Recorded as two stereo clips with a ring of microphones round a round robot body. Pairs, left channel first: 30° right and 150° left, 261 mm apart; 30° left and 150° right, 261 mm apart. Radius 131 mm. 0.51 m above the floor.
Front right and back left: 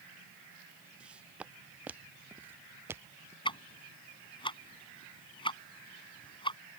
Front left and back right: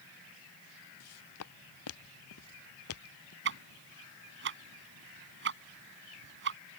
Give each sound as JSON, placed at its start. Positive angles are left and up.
{"t": 1.0, "sound": "footsteps", "azimuth_deg": 65}
{"t": 3.5, "sound": "ticking", "azimuth_deg": -105}